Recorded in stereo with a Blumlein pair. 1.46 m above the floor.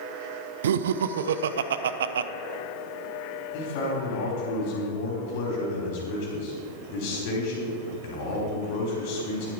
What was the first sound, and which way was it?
Laughter, 60° right.